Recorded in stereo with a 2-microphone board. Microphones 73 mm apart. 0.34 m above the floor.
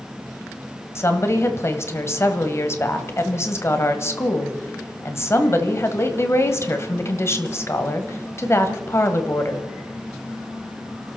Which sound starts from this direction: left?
A woman speaking, at 0.9 s.